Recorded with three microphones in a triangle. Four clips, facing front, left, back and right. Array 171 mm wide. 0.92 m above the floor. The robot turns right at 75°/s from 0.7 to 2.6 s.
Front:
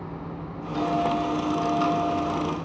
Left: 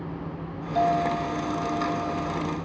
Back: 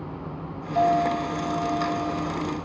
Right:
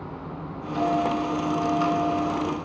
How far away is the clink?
About 3 m.